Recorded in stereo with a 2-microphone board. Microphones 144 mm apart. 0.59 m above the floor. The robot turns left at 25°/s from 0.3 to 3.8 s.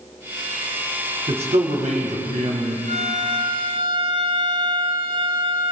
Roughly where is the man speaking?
Ahead right.